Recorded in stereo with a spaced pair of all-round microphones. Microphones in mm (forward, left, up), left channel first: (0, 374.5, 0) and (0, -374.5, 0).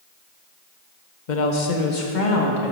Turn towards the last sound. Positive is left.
turn(degrees=80)